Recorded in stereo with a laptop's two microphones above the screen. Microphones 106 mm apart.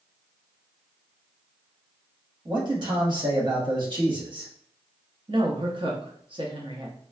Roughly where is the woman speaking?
Right.